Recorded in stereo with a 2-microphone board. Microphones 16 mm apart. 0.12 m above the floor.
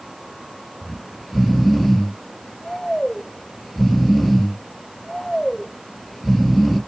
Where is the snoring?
10° left (ahead or behind), 2.5 m.